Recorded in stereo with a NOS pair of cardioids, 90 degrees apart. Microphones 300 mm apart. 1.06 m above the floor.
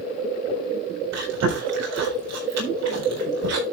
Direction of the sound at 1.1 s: 60° right.